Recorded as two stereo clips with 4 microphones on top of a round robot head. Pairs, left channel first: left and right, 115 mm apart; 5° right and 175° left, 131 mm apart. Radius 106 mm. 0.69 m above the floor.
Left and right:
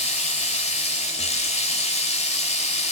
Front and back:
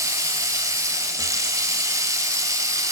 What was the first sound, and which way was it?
Running water, 110° left.